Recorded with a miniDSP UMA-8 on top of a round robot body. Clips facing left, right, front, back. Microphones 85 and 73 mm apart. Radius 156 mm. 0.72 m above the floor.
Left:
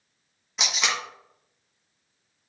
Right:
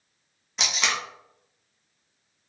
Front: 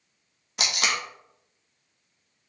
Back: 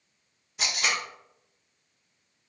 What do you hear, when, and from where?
0.6 s tape being pulled: 5° left, 0.6 m